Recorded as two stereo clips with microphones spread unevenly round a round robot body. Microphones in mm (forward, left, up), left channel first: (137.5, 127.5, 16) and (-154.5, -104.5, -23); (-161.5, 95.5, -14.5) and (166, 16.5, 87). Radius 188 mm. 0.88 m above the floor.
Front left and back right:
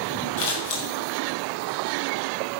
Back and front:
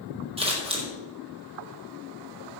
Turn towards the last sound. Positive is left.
turn(degrees=65)